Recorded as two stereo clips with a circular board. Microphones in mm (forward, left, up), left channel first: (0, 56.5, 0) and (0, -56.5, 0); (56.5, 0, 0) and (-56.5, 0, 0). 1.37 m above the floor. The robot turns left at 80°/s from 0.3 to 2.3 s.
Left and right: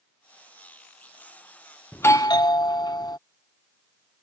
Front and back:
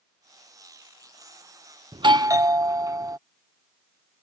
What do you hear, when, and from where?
1.9 s a doorbell: 160° left; by 3.2 s 130° left